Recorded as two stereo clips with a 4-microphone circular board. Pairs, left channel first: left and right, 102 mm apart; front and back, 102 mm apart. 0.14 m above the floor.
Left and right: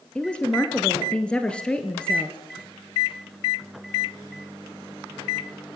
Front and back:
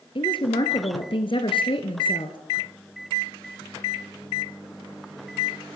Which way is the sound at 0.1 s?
10° left.